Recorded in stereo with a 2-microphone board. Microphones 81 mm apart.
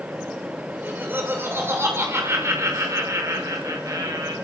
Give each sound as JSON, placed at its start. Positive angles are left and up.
{"t": 0.7, "sound": "laughter", "side_deg": -20, "distance_m": 6.0}